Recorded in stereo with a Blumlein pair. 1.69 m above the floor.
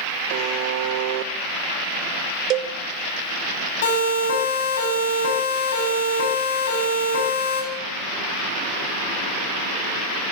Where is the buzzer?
45° right, 1.8 m.